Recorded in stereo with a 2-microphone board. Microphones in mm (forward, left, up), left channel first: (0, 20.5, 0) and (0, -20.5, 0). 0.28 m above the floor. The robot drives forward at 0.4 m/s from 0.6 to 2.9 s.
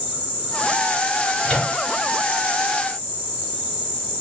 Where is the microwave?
20° left (ahead or behind), 2.5 m.